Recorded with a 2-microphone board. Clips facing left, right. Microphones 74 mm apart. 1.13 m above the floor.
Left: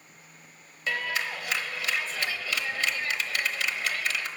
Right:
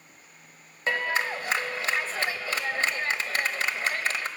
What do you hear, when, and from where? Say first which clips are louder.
0.9 s a clap: right 3 dB; 35° right (ahead or behind), 0.8 m